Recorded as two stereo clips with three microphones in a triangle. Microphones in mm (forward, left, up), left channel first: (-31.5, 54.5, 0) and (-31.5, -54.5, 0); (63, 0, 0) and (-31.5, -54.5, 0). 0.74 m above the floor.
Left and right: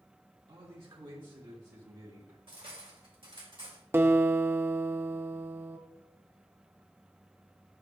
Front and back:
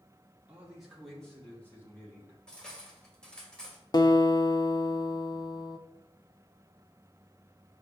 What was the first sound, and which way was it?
A man speaking, 75° right.